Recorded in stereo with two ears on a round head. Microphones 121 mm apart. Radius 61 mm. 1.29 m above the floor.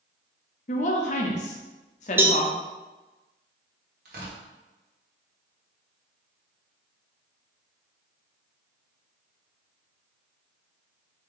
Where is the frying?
I don't hear frying.